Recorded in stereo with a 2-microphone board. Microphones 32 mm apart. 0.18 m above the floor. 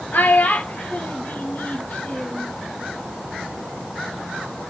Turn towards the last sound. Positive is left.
turn(degrees=45)  # may be behind; listen again after turning